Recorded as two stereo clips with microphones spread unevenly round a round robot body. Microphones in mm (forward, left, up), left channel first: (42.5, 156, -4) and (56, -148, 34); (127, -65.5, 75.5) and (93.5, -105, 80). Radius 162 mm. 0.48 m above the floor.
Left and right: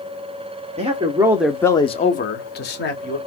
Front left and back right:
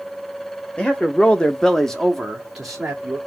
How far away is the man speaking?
About 1.0 m.